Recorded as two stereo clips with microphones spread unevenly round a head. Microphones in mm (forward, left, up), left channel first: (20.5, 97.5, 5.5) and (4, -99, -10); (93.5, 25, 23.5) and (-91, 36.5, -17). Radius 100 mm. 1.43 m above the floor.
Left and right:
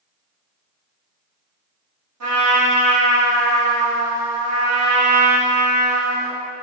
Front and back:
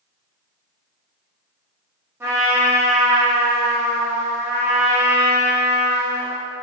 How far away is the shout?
No shout in this recording.